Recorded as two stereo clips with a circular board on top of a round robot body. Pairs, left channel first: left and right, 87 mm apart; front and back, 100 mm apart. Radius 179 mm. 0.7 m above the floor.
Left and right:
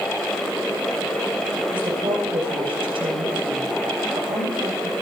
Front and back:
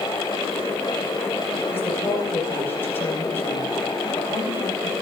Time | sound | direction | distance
1.7 | a woman speaking | 70° right | 4.5 m